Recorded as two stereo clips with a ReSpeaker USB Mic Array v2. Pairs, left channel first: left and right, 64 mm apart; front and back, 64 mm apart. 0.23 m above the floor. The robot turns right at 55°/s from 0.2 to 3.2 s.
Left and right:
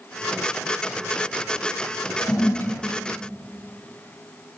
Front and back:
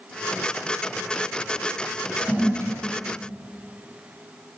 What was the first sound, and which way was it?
A toilet flushing, 110° left.